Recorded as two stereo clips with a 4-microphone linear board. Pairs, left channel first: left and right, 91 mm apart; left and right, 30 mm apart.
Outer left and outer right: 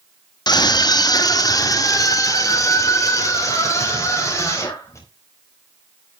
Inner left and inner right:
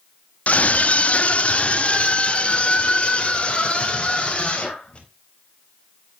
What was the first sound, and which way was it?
A scream, 50° left (ahead or behind).